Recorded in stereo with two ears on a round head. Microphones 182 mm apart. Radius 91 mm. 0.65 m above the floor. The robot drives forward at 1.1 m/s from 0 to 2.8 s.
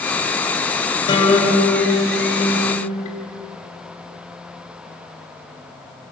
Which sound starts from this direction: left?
A guitar, at 1.1 s.